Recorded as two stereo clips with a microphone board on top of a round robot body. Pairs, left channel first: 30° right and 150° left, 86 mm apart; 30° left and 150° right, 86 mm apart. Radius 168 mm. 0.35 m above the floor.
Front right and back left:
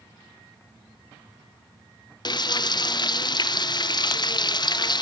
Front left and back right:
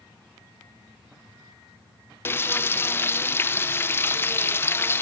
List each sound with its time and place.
2.2 s frying: 25° right, 0.6 m